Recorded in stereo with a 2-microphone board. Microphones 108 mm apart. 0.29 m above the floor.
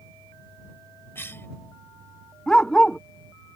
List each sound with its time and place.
1.1 s a cough: 20° left (ahead or behind)
2.5 s a dog barking: 5° left (ahead or behind)